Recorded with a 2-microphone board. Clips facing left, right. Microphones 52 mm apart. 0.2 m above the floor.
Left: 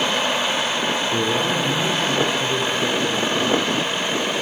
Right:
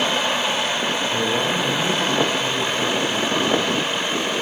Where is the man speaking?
40° left (ahead or behind), 6.5 m.